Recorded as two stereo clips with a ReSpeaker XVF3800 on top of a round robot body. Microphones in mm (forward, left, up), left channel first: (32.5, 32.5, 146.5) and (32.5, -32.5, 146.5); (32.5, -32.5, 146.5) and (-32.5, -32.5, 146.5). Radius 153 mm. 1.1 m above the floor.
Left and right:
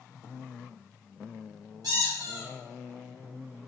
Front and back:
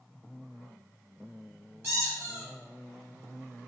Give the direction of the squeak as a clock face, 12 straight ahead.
4 o'clock.